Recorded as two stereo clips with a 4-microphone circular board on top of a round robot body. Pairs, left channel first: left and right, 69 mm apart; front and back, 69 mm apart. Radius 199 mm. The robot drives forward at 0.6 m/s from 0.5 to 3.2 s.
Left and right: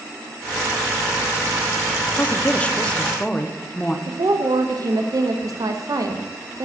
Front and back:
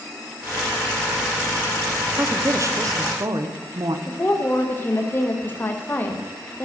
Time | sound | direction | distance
2.1 | a woman speaking | 135° left | 0.8 m
4.1 | a woman speaking | 60° right | 1.1 m